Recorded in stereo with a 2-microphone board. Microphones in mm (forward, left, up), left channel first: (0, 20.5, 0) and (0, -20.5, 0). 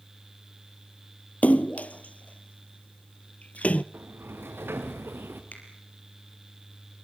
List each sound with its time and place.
1.4 s a splash: 35° left (ahead or behind), 0.5 m
3.9 s a sliding door: 70° right (ahead or behind), 3 m
5.5 s a finger snap: 45° left (ahead or behind), 4.5 m